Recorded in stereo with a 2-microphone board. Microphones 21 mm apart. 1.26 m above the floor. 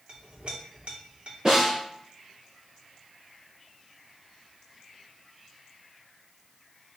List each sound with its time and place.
0.1 s a clink: 75° right (ahead or behind), 2 m
1.4 s a snare drum: 35° right (ahead or behind), 3.5 m